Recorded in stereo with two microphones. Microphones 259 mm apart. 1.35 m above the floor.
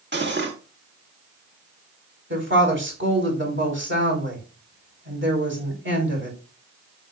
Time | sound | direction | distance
0.1 | cutlery clinking | 45° right (ahead or behind) | 1.7 m
2.3 | a woman speaking | 50° right (ahead or behind) | 4.5 m